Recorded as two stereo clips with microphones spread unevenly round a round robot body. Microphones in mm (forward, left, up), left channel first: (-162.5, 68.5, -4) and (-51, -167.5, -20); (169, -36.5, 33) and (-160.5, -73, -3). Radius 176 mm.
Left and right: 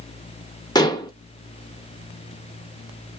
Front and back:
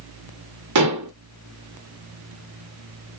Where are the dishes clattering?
170° right, 0.9 m.